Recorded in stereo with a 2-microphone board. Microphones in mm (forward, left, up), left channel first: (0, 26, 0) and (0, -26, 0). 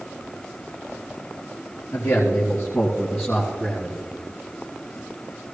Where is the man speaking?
55° left (ahead or behind), 2.5 m; by 4.0 s 10° left (ahead or behind), 2.5 m.